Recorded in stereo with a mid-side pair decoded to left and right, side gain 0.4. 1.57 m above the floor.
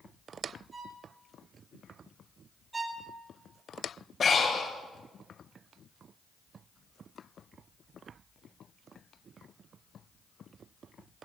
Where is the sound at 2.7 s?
30° right, 1.7 m.